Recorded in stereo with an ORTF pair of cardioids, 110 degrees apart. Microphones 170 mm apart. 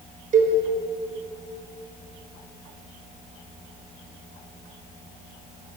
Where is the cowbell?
50° right, 6 m.